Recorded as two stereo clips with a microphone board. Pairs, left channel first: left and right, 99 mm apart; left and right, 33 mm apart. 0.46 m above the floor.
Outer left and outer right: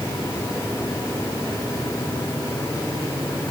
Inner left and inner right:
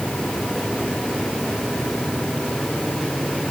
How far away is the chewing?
I don't hear chewing.